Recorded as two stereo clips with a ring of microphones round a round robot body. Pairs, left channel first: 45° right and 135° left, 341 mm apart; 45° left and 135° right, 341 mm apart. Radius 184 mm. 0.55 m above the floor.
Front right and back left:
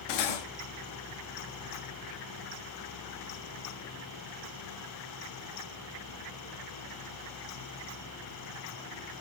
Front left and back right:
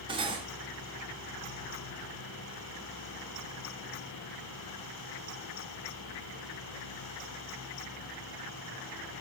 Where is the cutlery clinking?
60° right, 0.6 m.